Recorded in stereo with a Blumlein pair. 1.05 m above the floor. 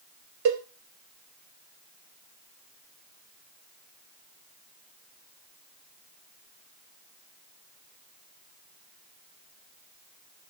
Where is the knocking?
No knocking in this recording.